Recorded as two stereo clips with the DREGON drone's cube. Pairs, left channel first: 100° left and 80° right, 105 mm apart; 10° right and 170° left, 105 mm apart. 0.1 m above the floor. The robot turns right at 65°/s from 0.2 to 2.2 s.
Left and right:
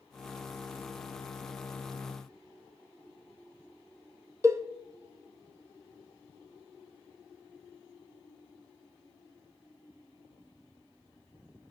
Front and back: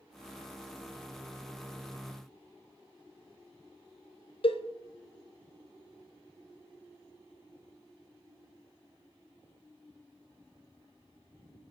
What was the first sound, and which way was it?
A cowbell, 20° right.